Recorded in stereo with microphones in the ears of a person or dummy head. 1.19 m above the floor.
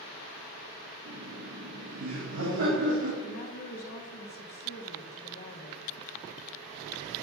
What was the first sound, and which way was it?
Laughter, 75° right (ahead or behind).